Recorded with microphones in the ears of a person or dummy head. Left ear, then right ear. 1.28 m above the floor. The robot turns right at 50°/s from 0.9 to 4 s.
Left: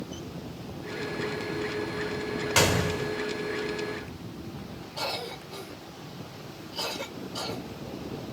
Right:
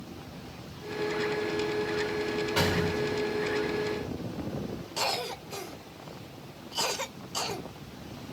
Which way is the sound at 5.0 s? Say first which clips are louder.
Right 2 dB; 70° right (ahead or behind).